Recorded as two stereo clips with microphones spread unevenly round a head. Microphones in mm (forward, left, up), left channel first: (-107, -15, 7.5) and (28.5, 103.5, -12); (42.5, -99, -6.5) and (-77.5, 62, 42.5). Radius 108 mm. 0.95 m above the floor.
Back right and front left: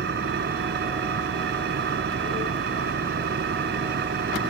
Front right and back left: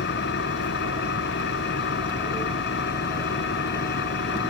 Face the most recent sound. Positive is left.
turn(degrees=-10)